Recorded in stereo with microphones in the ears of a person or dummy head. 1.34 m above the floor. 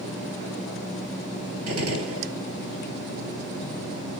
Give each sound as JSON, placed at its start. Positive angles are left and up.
{"t": 1.7, "sound": "a gunshot", "side_deg": -80, "distance_m": 4.0}